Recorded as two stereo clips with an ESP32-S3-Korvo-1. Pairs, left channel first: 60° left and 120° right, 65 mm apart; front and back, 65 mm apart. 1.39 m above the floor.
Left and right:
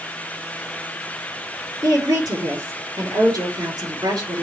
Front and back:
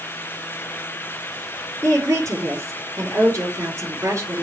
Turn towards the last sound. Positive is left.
turn(degrees=-140)